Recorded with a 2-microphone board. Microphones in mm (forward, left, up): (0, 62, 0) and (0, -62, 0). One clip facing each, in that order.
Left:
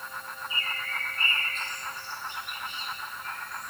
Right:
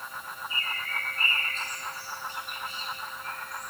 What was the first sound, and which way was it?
A bird, 40° right (ahead or behind).